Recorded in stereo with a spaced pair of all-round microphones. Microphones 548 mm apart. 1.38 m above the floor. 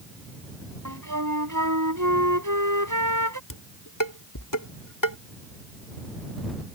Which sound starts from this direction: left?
Dishes clattering, at 3.5 s.